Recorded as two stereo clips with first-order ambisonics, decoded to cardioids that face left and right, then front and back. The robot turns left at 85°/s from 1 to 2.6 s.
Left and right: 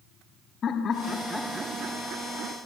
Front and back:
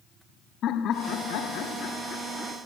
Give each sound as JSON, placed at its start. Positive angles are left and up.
{"t": 0.6, "sound": "laughter", "azimuth_deg": 40, "distance_m": 1.2}